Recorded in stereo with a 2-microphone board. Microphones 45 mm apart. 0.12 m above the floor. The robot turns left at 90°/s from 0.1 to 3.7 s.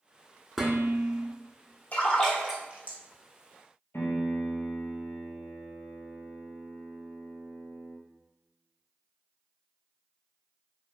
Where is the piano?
60° left (ahead or behind), 0.7 m.